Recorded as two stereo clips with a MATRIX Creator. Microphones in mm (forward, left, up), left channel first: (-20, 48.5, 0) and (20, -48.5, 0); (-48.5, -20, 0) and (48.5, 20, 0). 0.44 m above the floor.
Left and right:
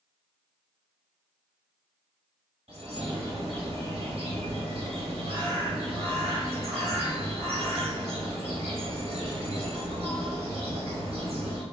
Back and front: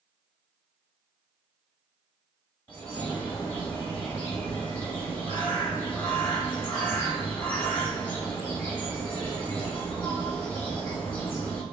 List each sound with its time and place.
2.7 s a bird: 85° right, 0.8 m